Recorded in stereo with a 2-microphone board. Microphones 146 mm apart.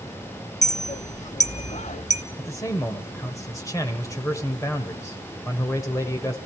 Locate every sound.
0.6 s a clink: 50° left (ahead or behind), 0.8 m
2.4 s a man speaking: 20° left (ahead or behind), 1.6 m